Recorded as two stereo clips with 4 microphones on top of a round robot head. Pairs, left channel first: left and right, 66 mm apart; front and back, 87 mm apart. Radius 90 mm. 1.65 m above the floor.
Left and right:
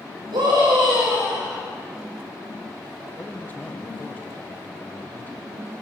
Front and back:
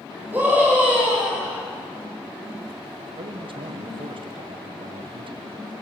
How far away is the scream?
About 9.5 m.